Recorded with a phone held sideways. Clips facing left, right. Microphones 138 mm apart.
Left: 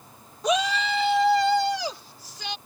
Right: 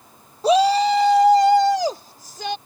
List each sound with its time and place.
0.4 s a shout: 30° right (ahead or behind); by 2.6 s 45° right (ahead or behind)